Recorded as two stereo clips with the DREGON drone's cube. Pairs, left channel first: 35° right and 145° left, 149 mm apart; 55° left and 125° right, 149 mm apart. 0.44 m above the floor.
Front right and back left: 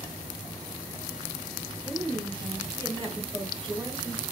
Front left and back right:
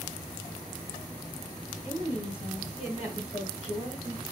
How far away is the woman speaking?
About 2.5 m.